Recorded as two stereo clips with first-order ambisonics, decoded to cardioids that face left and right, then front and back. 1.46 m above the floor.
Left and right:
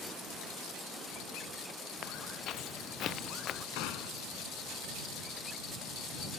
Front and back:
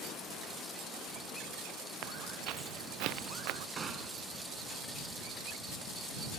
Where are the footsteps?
145° left; by 3.7 s 150° left.